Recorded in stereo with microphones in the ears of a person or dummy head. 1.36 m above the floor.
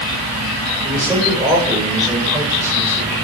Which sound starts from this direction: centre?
A man speaking, at 0.8 s.